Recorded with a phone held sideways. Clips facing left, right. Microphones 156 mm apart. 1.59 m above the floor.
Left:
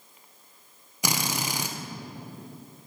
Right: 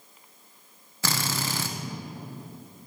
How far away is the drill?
About 1.2 m.